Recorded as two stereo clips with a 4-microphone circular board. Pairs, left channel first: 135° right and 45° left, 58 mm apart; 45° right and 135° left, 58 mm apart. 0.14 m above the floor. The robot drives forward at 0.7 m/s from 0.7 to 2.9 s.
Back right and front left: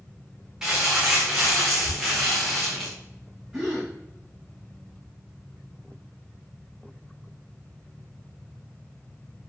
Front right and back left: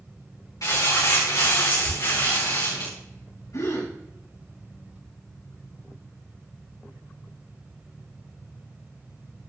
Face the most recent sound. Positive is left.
turn(degrees=-45)